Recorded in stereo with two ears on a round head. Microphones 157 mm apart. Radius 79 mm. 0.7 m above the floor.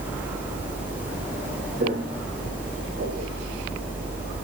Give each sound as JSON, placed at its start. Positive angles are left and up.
{"t": 1.8, "sound": "footsteps", "side_deg": -50, "distance_m": 9.0}